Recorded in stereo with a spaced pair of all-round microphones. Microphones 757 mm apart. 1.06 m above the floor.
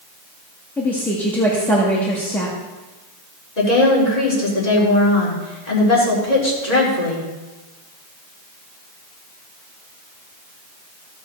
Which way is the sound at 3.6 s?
60° left (ahead or behind).